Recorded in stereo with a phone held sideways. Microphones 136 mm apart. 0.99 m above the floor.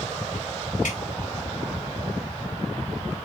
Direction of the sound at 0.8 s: 85° left.